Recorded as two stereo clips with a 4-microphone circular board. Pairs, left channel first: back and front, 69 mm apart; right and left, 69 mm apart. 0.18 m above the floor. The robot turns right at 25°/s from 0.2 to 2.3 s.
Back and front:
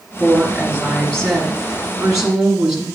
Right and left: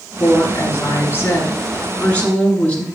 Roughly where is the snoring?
I don't hear snoring.